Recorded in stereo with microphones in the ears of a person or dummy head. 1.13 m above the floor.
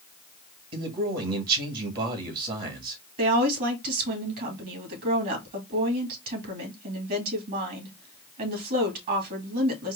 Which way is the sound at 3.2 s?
55° right (ahead or behind).